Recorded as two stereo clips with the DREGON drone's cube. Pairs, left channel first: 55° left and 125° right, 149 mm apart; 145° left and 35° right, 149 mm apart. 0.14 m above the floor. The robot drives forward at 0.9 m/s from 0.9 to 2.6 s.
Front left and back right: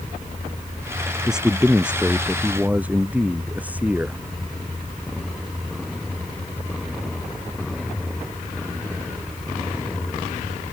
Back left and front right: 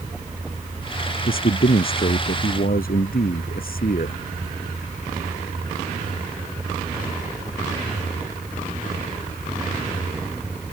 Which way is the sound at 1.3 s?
150° left.